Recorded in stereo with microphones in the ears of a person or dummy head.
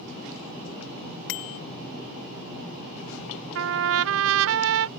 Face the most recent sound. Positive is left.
turn(degrees=-75)  # may be behind; listen again after turning